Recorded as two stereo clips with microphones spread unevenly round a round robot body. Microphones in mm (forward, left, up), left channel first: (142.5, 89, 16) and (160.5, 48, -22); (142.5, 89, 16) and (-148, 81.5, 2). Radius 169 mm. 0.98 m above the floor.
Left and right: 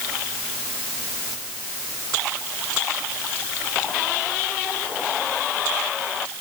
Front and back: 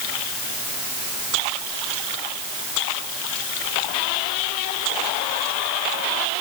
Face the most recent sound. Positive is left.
No sound to turn to.